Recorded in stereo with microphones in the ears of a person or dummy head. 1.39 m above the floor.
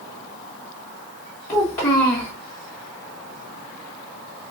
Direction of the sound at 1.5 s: 15° left (ahead or behind).